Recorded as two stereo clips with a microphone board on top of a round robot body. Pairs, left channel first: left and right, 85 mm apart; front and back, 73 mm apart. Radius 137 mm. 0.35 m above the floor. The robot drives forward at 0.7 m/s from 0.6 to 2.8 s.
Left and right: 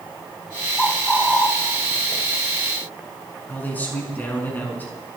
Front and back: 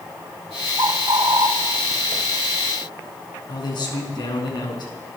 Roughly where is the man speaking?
Ahead.